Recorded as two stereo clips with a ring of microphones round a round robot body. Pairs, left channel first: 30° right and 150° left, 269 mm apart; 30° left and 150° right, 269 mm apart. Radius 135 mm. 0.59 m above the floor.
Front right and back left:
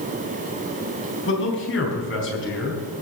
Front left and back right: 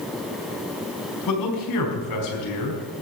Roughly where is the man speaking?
Ahead.